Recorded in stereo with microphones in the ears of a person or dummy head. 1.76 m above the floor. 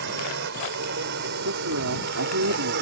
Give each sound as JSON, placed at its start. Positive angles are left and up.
{"t": 0.0, "sound": "a drone", "side_deg": -60}
{"t": 1.4, "sound": "a woman speaking", "side_deg": -75}